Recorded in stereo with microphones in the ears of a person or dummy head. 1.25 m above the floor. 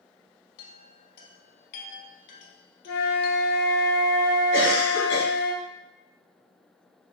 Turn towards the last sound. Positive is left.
turn(degrees=65)  # may be behind; listen again after turning